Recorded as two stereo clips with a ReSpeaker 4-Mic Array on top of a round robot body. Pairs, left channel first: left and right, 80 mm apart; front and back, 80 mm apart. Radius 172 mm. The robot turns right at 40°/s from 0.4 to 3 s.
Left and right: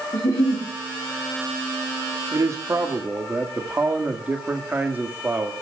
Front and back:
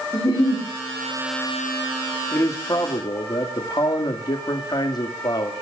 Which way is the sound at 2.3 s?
50° right.